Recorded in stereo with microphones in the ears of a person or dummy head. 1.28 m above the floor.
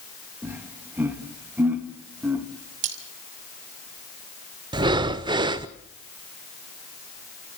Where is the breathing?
20° right (ahead or behind), 0.8 m.